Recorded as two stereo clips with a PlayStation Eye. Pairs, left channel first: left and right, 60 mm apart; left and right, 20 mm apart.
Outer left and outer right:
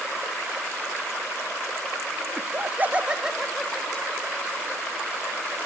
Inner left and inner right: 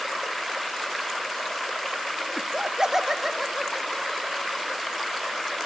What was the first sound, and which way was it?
Laughter, 45° right (ahead or behind).